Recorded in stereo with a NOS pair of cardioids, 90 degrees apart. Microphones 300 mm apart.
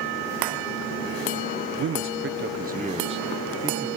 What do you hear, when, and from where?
1.8 s a man speaking: 55° right, 1.3 m; by 3.9 s 5° right, 1.9 m